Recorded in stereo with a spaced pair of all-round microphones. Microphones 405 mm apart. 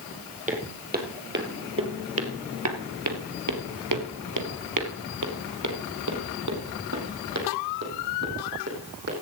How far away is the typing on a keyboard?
I don't hear typing on a keyboard.